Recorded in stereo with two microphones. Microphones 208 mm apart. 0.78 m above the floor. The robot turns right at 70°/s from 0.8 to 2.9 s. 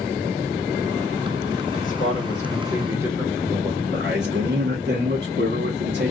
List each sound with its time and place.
1.8 s a man speaking: 120° left, 1.1 m; by 3.8 s 165° right, 1.1 m
3.9 s a man speaking: 50° right (ahead or behind), 1.0 m